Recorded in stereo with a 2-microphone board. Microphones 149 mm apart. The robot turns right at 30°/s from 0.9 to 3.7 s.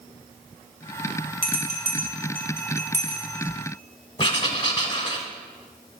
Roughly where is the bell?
Right.